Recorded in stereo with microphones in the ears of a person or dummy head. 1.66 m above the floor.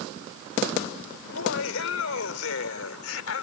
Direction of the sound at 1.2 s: 85° left.